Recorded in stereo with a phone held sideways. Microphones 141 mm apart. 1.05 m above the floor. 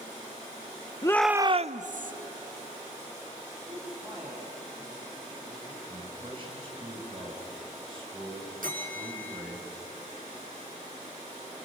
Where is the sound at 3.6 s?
5° right (ahead or behind), 6 m.